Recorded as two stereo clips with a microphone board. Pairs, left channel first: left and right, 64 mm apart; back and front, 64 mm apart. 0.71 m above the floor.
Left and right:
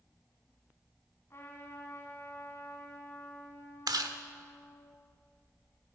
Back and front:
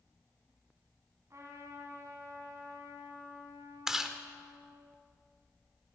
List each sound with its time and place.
1.3 s a trumpet: 40° left, 2.5 m
3.9 s chewing: 85° right, 0.8 m